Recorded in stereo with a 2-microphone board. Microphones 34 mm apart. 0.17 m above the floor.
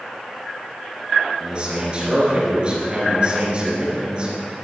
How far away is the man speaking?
About 3 m.